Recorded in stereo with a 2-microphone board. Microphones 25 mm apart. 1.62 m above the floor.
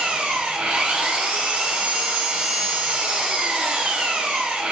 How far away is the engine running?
About 0.9 m.